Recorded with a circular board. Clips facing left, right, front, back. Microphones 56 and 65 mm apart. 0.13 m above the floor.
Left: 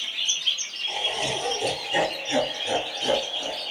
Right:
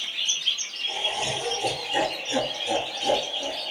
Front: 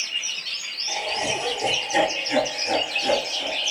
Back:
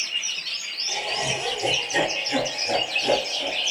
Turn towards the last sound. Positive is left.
turn(degrees=70)